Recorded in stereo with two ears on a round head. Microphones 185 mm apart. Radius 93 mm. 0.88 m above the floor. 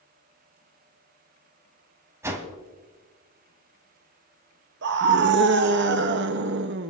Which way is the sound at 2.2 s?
15° right (ahead or behind).